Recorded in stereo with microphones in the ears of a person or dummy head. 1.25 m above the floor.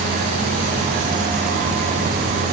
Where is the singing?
I don't hear singing.